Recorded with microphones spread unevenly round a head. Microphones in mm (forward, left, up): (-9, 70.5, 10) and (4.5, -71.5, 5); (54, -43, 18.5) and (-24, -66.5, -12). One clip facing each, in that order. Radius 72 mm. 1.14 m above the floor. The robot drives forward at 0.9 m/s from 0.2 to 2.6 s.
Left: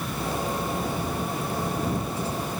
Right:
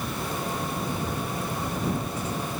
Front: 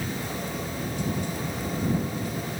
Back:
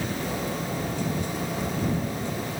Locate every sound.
Only background noise.